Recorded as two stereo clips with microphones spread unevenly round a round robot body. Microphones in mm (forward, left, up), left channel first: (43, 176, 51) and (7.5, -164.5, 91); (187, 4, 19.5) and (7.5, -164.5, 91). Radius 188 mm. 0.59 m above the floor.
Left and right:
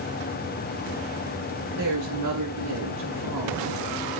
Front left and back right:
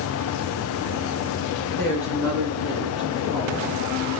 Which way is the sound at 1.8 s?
140° right.